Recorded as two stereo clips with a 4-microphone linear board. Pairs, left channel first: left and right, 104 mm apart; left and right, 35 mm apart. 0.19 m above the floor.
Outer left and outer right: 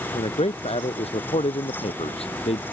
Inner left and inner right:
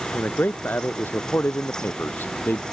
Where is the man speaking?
80° left.